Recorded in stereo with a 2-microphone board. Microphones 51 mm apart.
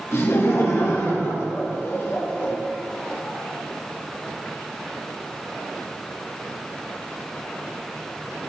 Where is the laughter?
65° left (ahead or behind), 2.5 m; by 2.5 s 45° left (ahead or behind), 1.4 m.